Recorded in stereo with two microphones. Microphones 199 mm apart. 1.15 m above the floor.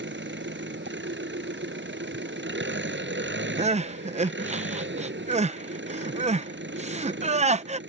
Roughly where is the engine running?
Right.